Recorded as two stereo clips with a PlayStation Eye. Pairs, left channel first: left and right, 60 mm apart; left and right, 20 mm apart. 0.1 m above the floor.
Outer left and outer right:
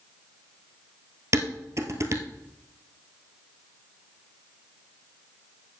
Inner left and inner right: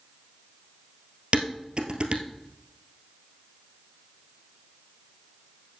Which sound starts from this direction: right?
Dishes clattering, at 1.3 s.